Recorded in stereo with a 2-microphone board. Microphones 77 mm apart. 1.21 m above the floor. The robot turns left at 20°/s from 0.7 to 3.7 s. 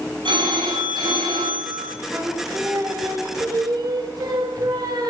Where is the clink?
I don't hear a clink.